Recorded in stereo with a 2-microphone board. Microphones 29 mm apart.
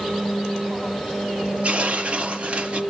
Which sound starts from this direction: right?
Tearing paper, at 1.6 s.